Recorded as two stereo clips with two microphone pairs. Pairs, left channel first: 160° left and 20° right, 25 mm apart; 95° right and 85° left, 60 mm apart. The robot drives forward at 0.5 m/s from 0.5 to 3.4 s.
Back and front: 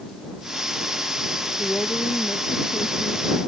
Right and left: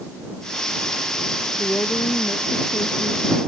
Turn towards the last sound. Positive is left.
turn(degrees=-155)